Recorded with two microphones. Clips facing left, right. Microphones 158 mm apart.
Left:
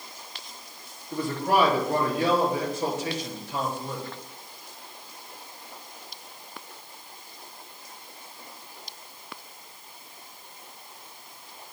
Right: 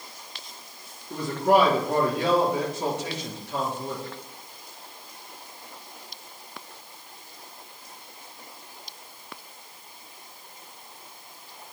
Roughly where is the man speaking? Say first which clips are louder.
Right 4 dB; right.